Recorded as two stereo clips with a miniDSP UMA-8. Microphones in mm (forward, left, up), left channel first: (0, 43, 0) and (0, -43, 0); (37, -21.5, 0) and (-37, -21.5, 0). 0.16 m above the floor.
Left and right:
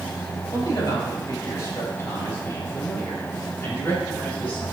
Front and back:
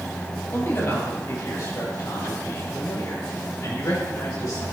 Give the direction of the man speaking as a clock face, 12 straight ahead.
10 o'clock.